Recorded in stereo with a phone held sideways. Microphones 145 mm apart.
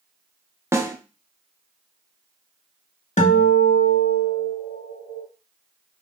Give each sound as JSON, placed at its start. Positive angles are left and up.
{"t": 0.7, "sound": "a snare drum", "side_deg": -20, "distance_m": 0.5}
{"t": 3.2, "sound": "a guitar", "side_deg": 55, "distance_m": 0.7}